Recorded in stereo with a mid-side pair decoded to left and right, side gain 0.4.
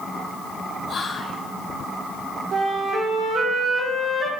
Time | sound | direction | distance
0.9 | whispering | 50° left | 0.9 m
2.5 | a flute | 50° right | 2.5 m